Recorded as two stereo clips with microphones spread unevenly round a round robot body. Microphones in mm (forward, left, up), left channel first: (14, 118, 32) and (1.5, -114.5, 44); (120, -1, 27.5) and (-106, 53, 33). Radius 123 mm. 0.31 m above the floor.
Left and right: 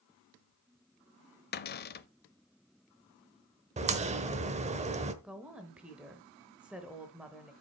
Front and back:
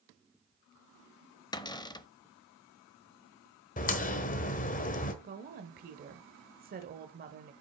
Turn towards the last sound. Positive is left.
turn(degrees=180)